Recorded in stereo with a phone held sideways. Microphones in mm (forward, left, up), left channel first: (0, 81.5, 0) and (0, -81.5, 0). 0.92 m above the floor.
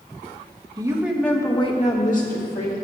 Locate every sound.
0.8 s a woman speaking: 25° right (ahead or behind), 1.3 m; by 2.7 s 65° left (ahead or behind), 2 m